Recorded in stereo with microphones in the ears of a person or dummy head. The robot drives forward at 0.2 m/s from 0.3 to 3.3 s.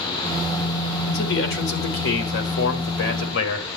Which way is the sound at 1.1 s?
80° left.